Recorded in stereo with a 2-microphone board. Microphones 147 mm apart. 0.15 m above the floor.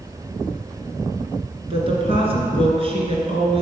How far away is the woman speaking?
About 2.5 m.